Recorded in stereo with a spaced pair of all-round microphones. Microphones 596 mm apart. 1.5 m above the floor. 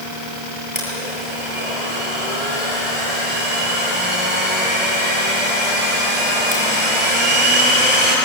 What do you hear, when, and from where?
0.8 s a blender: 15° right (ahead or behind), 8 m